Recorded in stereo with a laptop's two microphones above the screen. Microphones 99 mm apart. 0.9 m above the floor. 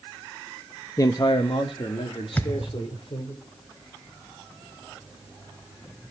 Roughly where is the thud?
Centre.